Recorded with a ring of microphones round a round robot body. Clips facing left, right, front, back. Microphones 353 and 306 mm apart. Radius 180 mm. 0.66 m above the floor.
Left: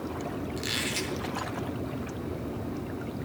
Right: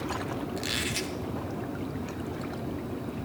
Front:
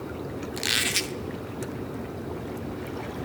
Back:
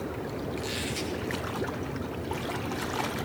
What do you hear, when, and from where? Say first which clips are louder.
0.6 s a squeak: even, even; straight ahead, 0.7 m